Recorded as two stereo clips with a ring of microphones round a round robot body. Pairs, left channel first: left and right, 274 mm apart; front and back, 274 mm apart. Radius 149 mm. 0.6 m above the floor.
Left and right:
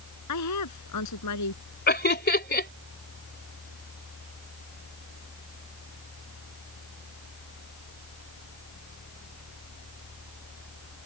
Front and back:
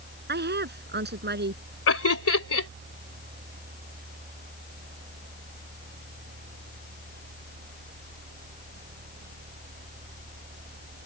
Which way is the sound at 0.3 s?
125° left.